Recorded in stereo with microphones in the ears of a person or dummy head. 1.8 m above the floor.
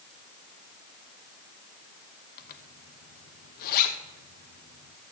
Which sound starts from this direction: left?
A zipper, at 2.4 s.